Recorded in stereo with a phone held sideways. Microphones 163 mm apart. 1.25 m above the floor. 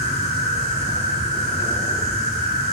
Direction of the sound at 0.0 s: 45° left (ahead or behind).